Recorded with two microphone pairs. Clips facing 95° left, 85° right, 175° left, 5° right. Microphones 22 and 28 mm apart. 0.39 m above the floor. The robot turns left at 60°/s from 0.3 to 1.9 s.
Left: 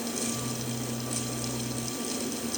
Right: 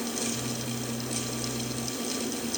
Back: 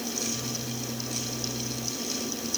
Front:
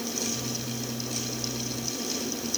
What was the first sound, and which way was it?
Only background noise.